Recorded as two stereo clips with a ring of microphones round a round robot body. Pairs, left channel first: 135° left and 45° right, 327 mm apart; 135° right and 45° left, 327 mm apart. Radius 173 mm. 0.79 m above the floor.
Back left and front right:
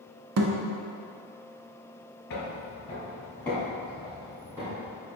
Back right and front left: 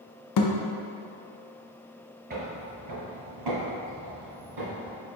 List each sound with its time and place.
0.4 s a thud: 95° right, 0.5 m
2.3 s footsteps: 95° left, 0.9 m; by 5.0 s 35° left, 2.5 m